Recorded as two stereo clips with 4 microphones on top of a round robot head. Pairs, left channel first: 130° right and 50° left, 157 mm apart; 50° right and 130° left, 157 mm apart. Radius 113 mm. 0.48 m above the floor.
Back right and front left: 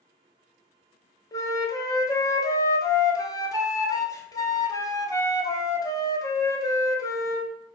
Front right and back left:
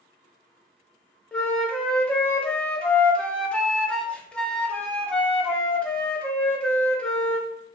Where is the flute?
120° right, 0.7 m.